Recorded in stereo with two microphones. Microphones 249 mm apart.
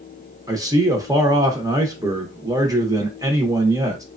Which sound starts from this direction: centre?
A man speaking, at 0.5 s.